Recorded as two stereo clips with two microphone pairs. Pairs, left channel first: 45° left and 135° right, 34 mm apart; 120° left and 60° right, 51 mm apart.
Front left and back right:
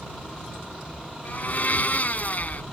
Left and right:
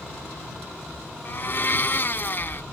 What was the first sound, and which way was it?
A blender, 75° left.